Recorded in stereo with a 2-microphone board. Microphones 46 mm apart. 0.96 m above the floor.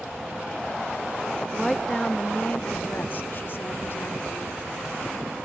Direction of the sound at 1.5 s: Centre (ahead or behind).